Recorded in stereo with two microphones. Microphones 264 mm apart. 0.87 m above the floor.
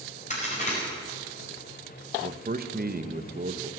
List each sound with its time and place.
0.3 s a crack: 30° left (ahead or behind), 5 m
2.2 s a man speaking: 35° right (ahead or behind), 0.8 m